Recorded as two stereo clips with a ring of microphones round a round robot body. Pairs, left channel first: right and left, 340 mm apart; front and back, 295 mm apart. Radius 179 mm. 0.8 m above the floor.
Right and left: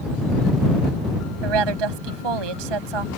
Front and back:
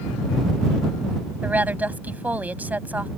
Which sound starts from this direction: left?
A woman speaking, at 1.4 s.